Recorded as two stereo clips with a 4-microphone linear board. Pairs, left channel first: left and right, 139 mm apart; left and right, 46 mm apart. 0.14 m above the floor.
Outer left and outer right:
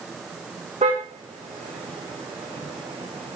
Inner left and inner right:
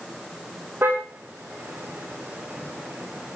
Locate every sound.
0.8 s a car horn: 55° right (ahead or behind), 6.5 m; by 3.4 s 40° right (ahead or behind), 6 m